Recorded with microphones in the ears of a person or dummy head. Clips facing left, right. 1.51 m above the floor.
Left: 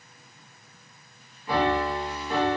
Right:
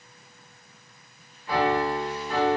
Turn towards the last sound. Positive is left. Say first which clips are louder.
# right 1 dB
turn(degrees=85)